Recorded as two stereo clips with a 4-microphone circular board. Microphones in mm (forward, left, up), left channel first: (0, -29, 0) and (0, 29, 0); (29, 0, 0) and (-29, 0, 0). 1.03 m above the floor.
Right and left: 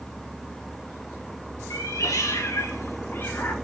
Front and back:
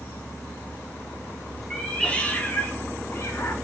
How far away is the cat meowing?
About 1.4 m.